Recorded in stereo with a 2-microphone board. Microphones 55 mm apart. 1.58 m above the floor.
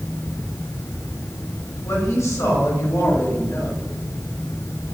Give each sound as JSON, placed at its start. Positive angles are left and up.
{"t": 1.8, "sound": "a woman speaking", "side_deg": 70, "distance_m": 4.5}